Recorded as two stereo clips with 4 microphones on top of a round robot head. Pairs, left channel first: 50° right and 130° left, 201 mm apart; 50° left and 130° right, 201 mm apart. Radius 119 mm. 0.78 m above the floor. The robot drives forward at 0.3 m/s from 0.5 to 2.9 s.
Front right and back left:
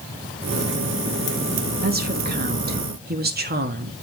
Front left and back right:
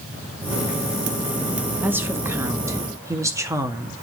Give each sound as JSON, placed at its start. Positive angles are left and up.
{"t": 1.8, "sound": "a woman speaking", "azimuth_deg": 155, "distance_m": 1.5}